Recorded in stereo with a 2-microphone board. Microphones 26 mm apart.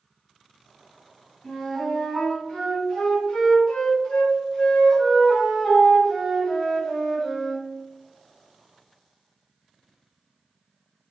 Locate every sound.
1.4 s a flute: 45° left (ahead or behind), 1.3 m